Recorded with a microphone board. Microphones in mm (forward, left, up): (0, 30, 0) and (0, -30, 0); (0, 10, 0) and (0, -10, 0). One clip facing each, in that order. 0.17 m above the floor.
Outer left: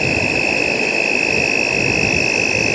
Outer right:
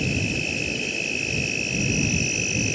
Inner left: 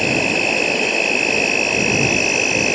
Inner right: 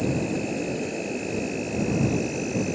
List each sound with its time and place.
0.0 s an insect: 70° left (ahead or behind)